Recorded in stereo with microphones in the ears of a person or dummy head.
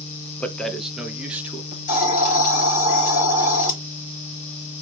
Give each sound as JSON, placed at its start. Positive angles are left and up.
{"t": 0.4, "sound": "a man speaking", "side_deg": 10, "distance_m": 0.8}
{"t": 1.7, "sound": "a hiss", "side_deg": 50, "distance_m": 3.0}